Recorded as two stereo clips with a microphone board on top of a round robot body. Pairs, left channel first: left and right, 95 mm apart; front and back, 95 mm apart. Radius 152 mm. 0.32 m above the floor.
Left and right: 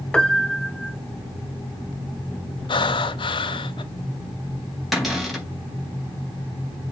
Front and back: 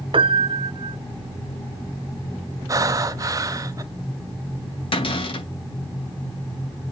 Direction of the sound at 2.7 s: 125° left.